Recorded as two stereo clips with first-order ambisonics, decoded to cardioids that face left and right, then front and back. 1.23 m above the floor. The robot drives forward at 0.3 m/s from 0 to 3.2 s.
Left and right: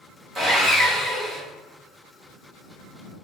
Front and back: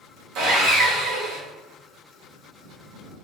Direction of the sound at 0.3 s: 170° right.